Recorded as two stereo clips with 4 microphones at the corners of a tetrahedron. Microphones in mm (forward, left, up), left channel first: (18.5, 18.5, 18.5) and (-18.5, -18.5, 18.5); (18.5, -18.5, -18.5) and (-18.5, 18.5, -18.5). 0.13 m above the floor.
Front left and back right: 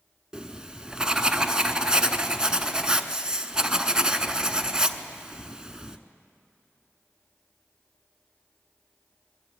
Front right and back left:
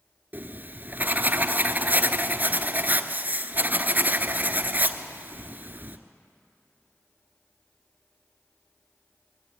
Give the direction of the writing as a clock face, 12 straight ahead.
7 o'clock.